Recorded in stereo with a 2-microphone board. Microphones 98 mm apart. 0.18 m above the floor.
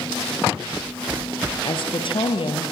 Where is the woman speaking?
55° left (ahead or behind), 4 m; by 2.7 s 60° left (ahead or behind), 5 m.